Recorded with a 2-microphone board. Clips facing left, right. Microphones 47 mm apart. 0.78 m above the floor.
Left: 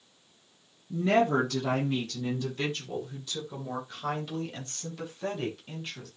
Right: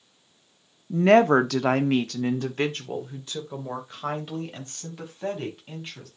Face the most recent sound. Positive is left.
turn(degrees=-20)  # may be behind; listen again after turning